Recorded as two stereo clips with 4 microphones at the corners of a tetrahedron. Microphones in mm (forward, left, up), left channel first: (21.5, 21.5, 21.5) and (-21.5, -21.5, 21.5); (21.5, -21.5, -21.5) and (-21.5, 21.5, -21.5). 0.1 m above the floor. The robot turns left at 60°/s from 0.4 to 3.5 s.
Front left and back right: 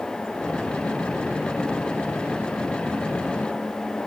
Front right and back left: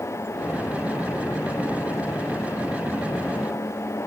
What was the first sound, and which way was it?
Only background noise.